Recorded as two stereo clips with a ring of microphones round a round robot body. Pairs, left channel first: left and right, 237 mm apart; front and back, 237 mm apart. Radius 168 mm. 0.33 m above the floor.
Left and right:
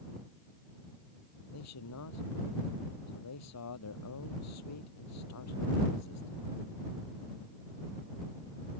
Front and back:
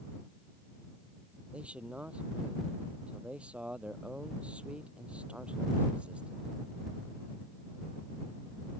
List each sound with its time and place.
1.5 s a man speaking: 95° left